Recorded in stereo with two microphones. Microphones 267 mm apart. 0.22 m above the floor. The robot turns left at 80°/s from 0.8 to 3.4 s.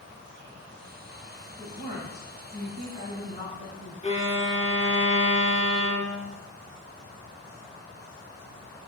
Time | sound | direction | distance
1.5 | a woman speaking | 155° right | 1.2 m
4.0 | a violin | 25° left (ahead or behind) | 0.9 m